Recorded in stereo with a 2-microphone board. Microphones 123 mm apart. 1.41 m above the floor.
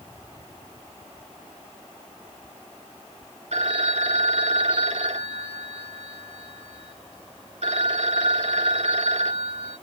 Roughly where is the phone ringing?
Right.